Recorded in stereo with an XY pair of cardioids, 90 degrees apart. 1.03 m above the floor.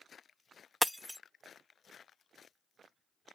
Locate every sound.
0.8 s breaking glass: 5° left